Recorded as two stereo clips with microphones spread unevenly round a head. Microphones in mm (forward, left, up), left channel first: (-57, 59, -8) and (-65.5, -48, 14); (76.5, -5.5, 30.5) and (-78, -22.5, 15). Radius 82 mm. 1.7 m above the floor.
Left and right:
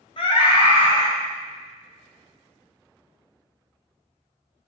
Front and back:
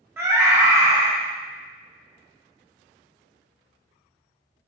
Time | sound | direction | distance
0.2 | a scream | 110° left | 0.7 m